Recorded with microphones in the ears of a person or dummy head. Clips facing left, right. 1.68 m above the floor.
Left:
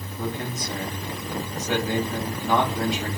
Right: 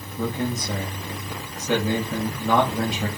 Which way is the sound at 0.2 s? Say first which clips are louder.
Right 4 dB; 55° right (ahead or behind).